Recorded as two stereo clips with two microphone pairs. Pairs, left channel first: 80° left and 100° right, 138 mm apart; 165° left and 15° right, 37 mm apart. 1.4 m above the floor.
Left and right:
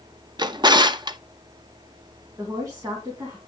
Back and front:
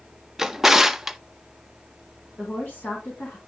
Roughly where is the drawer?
Right.